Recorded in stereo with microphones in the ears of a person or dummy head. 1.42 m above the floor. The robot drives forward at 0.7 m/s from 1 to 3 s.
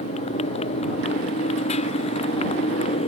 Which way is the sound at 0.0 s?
40° left (ahead or behind).